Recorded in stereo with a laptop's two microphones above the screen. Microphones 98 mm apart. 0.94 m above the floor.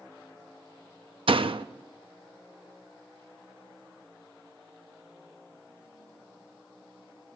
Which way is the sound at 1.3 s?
70° right (ahead or behind).